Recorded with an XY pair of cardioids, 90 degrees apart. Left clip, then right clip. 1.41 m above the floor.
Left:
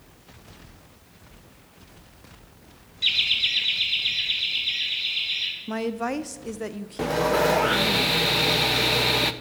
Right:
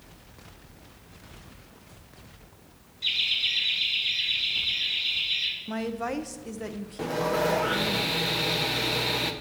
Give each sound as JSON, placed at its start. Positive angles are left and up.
{"t": 3.0, "sound": "laughter", "azimuth_deg": 55, "distance_m": 1.0}
{"t": 5.7, "sound": "a woman speaking", "azimuth_deg": 25, "distance_m": 0.6}
{"t": 7.0, "sound": "sawing", "azimuth_deg": 40, "distance_m": 0.6}